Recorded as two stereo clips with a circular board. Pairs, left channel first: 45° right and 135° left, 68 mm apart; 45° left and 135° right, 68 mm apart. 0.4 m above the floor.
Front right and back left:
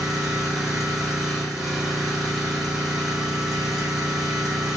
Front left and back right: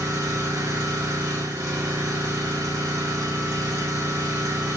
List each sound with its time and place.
0.0 s an engine running: 140° right, 2.5 m